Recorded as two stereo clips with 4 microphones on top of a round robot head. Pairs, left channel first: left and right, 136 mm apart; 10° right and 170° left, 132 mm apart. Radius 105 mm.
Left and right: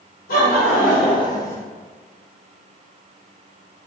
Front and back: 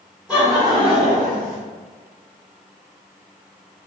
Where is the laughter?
90° left, 0.9 m; by 1.6 s 170° left, 0.9 m.